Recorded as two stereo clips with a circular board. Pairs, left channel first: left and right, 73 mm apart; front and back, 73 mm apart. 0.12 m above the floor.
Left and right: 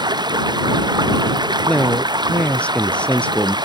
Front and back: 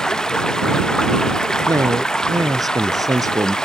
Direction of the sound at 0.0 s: 80° right.